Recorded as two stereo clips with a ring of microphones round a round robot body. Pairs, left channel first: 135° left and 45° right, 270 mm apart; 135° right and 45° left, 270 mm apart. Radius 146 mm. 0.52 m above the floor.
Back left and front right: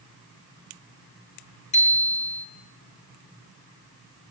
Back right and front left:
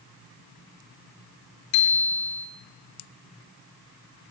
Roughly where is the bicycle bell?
Behind.